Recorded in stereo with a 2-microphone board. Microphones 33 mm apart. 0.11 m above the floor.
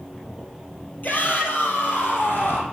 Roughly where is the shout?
Left.